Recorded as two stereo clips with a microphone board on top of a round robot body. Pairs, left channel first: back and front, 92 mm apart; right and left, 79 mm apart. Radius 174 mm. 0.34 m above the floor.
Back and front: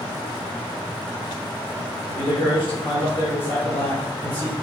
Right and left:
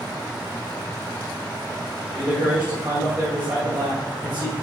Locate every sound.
2.1 s a man speaking: 155° left, 2.5 m